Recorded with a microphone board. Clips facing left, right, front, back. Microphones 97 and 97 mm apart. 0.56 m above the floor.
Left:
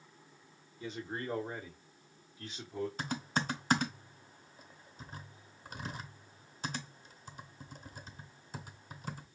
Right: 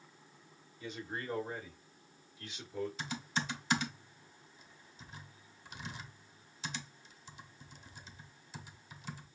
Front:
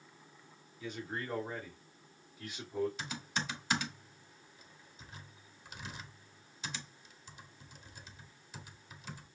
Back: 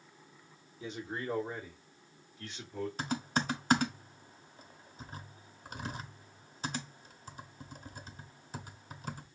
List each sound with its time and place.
0.8 s a man speaking: 130° left, 1.6 m; by 2.9 s 65° left, 1.5 m
3.0 s typing on a keyboard: 130° left, 0.8 m